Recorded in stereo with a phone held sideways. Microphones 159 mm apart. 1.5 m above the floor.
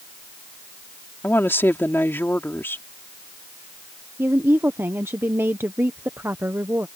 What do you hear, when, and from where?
1.2 s a woman speaking: 15° left (ahead or behind)
4.2 s a woman speaking: 15° right (ahead or behind)